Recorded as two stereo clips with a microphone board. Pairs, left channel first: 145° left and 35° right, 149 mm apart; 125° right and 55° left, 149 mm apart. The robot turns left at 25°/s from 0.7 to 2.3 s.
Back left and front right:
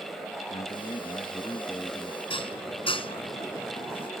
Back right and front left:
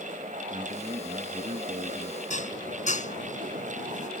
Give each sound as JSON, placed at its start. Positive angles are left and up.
{"t": 0.5, "sound": "a man speaking", "azimuth_deg": 105}
{"t": 2.3, "sound": "dishes clattering", "azimuth_deg": -160}